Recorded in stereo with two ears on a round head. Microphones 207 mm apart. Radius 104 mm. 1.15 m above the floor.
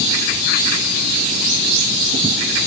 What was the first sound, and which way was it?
Only background noise.